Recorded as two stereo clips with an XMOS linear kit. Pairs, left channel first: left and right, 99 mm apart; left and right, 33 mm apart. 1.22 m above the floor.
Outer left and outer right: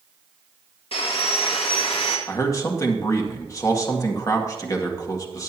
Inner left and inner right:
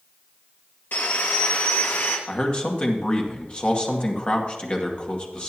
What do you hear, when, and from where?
0.9 s sawing: 70° left (ahead or behind), 2 m
2.3 s a man speaking: 35° left (ahead or behind), 2.0 m